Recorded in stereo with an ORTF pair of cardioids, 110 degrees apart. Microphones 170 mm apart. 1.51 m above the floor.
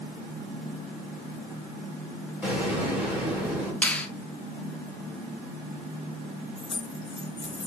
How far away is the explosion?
About 2.5 m.